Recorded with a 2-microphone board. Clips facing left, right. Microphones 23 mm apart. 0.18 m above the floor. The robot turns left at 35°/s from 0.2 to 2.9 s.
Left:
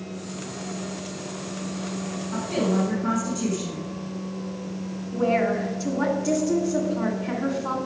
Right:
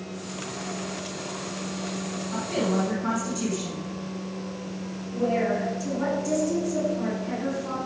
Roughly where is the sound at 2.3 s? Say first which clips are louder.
Left 2 dB; centre.